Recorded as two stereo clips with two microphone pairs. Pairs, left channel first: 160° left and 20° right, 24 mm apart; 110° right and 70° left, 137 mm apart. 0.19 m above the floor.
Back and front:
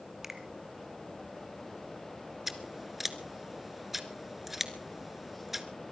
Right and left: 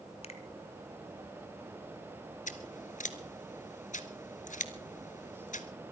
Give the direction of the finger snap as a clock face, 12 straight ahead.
3 o'clock.